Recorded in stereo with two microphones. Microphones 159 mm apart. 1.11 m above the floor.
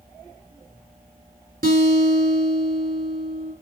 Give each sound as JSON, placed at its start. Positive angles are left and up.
{"t": 1.6, "sound": "a guitar", "side_deg": -75, "distance_m": 3.5}